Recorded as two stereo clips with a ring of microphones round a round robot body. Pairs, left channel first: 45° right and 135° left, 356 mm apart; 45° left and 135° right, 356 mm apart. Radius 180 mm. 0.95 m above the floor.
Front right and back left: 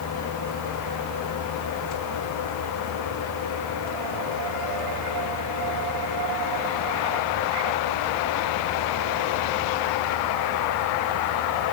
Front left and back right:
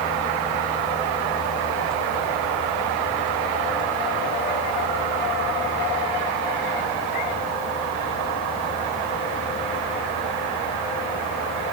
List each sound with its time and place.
Only background noise.